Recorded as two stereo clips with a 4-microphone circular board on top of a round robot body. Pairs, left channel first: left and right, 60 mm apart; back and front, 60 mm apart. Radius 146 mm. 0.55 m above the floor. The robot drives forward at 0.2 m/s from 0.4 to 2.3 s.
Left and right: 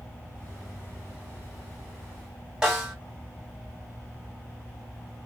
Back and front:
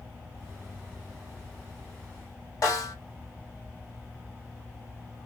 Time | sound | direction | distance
2.6 | a snare drum | 165° right | 3 m